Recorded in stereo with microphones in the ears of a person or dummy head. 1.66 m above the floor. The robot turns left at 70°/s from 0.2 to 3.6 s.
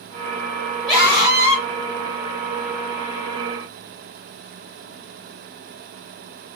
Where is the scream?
5° left, 1.0 m; by 1.6 s 50° right, 1.0 m.